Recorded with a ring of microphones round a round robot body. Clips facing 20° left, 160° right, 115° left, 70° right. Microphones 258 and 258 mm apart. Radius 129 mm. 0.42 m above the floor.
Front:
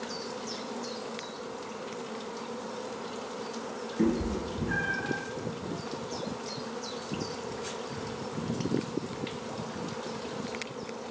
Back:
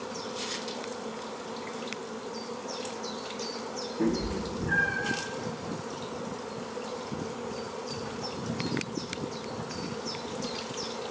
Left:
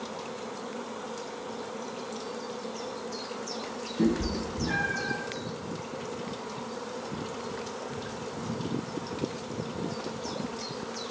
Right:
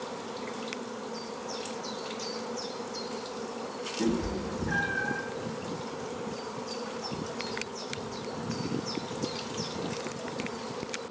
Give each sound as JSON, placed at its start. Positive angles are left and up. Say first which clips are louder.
{"t": 4.0, "sound": "a cat meowing", "louder": "front 1 dB, left 3 dB", "azimuth_deg": 75, "distance_m": 1.8}